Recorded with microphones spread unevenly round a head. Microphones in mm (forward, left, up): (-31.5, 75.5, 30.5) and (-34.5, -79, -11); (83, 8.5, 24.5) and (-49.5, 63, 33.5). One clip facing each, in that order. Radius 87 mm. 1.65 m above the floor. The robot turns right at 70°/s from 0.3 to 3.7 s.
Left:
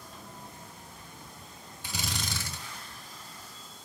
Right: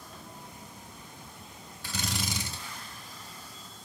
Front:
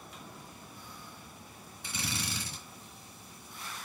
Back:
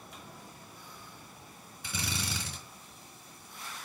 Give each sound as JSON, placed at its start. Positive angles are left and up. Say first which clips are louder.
{"t": 1.8, "sound": "a drill", "louder": "right 2 dB, back 1 dB", "azimuth_deg": 155, "distance_m": 4.0}